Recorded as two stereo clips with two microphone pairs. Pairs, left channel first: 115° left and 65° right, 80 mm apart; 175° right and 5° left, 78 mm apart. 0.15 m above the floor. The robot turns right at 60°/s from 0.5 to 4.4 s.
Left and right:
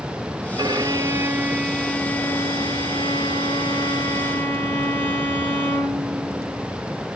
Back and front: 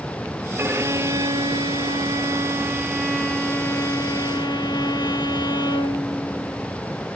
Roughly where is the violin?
Ahead right.